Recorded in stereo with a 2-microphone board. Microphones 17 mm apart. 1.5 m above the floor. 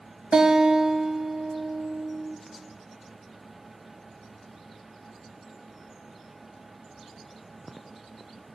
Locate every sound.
0.3 s a guitar: 55° right (ahead or behind), 2 m